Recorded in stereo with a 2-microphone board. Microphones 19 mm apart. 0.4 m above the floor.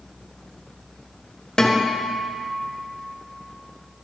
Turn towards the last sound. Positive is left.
turn(degrees=50)  # may be behind; listen again after turning